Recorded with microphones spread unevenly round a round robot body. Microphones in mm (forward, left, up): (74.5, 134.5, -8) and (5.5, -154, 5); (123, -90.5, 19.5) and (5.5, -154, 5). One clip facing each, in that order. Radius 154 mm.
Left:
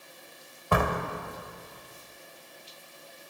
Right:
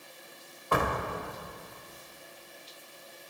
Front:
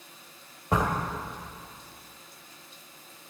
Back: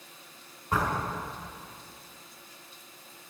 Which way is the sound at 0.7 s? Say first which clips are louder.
Left 2 dB, front 2 dB; 85° left.